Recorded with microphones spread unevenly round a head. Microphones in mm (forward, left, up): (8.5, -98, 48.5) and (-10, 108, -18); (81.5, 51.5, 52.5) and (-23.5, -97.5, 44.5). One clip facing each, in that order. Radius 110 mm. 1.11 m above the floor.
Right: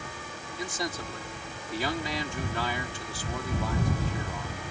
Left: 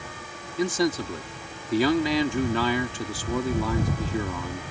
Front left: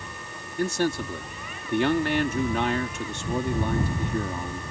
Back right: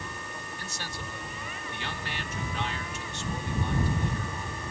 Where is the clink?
I don't hear a clink.